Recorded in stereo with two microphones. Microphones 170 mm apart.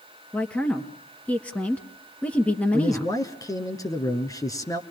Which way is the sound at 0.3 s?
10° left (ahead or behind).